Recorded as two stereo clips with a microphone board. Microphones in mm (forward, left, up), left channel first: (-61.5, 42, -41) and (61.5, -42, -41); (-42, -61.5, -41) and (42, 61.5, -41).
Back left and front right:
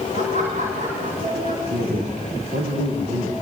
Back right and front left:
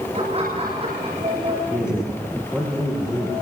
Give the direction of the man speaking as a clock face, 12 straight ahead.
1 o'clock.